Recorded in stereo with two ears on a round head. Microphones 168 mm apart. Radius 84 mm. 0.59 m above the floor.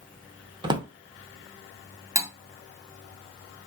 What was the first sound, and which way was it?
A drawer, 25° right (ahead or behind).